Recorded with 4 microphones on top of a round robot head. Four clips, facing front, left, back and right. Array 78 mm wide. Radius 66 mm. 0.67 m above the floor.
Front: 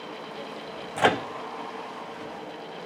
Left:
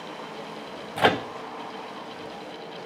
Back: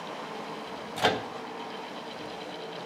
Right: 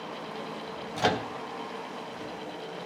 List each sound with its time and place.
1.0 s a microwave: 50° left, 0.6 m